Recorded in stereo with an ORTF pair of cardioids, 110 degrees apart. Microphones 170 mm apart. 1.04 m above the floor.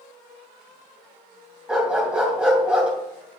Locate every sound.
1.7 s a dog barking: 5° right, 2.5 m